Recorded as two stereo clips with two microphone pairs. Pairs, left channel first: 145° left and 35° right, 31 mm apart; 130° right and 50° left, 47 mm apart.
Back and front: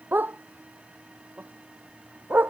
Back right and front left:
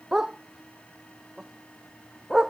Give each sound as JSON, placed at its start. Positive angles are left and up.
{"t": 0.1, "sound": "a dog barking", "azimuth_deg": -30}